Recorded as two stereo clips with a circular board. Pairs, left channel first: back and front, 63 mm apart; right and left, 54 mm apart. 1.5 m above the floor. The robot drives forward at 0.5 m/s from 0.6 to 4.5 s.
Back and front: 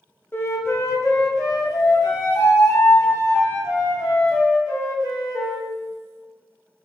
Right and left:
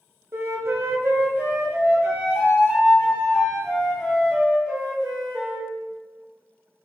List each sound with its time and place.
0.3 s a flute: 125° left, 0.6 m; by 5.7 s 170° left, 2.5 m